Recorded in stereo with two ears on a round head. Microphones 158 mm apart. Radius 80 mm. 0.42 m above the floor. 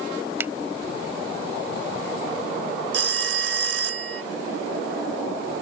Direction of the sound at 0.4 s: 10° right (ahead or behind).